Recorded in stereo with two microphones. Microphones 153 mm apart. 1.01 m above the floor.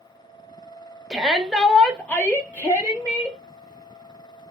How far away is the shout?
About 0.7 m.